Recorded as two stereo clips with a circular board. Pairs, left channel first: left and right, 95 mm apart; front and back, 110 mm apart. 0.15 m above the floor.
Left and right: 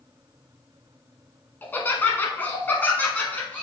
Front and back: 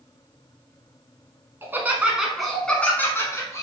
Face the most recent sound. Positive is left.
turn(degrees=25)